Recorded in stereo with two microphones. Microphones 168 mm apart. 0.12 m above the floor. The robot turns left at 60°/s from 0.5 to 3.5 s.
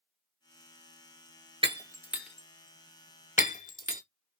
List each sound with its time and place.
1.6 s breaking glass: 30° right (ahead or behind), 0.5 m; by 4.0 s 50° left (ahead or behind), 0.5 m